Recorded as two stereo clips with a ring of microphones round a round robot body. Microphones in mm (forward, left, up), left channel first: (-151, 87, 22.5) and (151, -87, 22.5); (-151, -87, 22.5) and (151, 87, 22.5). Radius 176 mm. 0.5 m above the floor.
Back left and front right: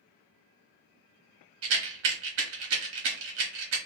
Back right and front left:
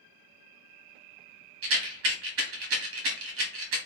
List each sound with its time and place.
1.6 s a rattle: 5° right, 0.8 m